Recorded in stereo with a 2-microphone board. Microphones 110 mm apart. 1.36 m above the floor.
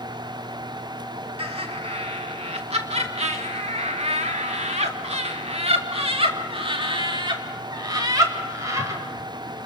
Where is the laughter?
60° right (ahead or behind), 3 m; by 9.0 s 30° right (ahead or behind), 3 m.